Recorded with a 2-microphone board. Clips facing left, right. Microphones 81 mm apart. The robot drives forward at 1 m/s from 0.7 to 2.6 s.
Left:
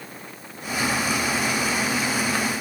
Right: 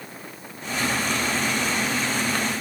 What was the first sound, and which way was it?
Only background noise.